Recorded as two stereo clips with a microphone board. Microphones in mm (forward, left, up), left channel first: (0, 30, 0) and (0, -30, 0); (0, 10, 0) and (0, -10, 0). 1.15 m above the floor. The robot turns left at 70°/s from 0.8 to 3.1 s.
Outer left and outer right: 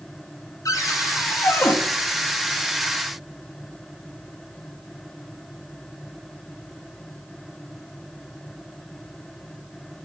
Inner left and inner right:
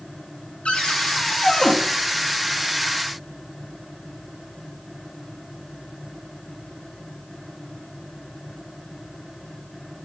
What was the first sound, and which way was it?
A cupboard door, 105° left.